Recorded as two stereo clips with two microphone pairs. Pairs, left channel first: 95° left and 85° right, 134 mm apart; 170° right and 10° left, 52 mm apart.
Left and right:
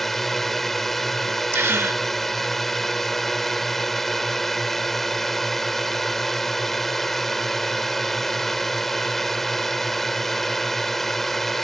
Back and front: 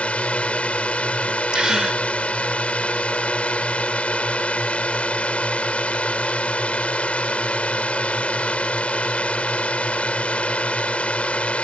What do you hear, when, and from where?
0.0 s a drone: straight behind
1.5 s a gasp: 50° right